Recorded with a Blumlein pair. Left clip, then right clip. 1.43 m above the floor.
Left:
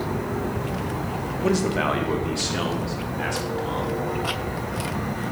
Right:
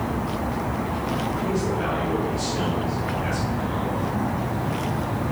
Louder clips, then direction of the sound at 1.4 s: Left 7 dB; 45° left.